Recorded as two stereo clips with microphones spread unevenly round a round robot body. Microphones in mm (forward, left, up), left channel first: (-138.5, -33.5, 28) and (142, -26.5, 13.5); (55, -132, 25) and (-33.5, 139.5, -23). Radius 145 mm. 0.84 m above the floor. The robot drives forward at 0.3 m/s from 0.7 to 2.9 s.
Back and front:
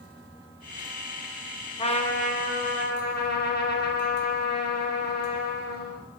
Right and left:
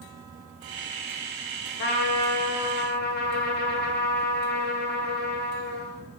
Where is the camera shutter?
I don't hear a camera shutter.